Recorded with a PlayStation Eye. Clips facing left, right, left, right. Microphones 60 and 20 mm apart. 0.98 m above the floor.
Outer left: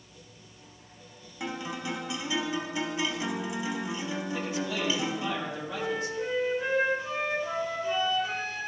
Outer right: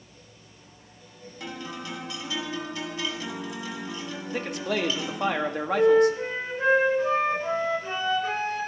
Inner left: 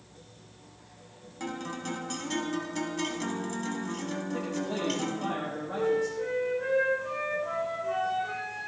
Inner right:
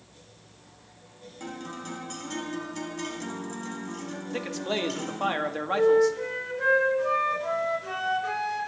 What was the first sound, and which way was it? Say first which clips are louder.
A guitar: outer left 2 dB, inner left 2 dB; 20° left (ahead or behind).